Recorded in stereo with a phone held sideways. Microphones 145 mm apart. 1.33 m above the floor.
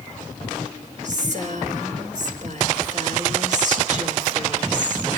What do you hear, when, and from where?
1.0 s a woman speaking: 60° right (ahead or behind), 5.5 m